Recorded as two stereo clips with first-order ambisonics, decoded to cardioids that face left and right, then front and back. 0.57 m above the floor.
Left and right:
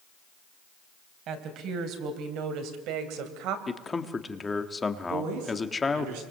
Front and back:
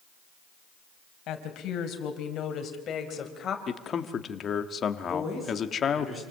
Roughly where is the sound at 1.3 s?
Ahead right.